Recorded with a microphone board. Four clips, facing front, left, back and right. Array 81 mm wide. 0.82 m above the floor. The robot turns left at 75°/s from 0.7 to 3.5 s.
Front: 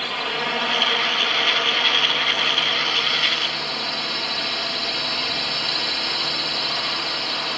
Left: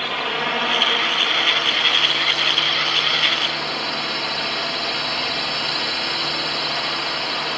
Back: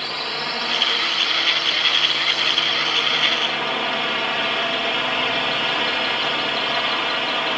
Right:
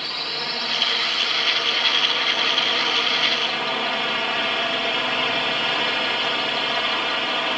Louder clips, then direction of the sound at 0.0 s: Left 7 dB, front 2 dB; 65° left.